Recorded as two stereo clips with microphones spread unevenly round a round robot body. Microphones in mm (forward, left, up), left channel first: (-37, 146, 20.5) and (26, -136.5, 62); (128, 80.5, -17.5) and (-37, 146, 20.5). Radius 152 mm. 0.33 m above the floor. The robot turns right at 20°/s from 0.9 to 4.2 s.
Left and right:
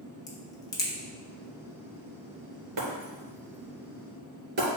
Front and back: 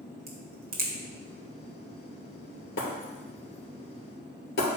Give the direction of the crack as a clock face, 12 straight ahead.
7 o'clock.